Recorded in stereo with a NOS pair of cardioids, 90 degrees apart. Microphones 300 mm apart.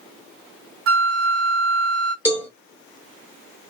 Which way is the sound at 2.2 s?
10° right.